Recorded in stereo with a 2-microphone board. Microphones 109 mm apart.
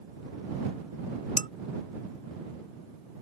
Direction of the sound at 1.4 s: 55° left (ahead or behind).